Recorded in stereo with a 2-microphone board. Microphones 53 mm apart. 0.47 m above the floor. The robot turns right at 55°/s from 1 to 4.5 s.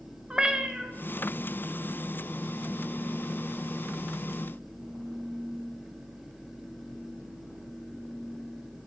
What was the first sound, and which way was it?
A cat meowing, 20° right (ahead or behind).